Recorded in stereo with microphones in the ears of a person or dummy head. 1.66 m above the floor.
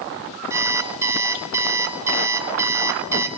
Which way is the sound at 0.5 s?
15° right (ahead or behind).